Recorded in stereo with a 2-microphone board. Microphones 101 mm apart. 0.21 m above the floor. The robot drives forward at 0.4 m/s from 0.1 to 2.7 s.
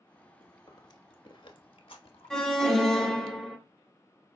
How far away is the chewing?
About 0.9 m.